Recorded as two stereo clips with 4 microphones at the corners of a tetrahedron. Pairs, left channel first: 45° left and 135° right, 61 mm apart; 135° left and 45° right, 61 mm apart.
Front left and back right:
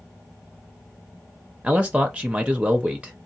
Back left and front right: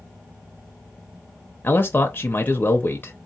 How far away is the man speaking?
About 0.6 m.